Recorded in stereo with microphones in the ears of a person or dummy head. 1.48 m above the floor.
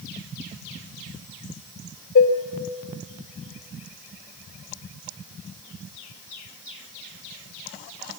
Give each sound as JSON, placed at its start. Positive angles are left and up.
{"t": 2.1, "sound": "dishes clattering", "side_deg": 50, "distance_m": 1.4}